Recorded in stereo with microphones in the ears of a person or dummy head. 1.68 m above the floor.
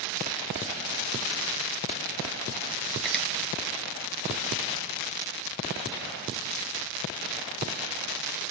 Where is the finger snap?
5° left (ahead or behind), 1.7 m.